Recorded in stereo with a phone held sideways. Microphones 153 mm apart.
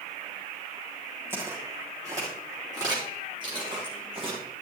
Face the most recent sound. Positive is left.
turn(degrees=-40)  # may be behind; listen again after turning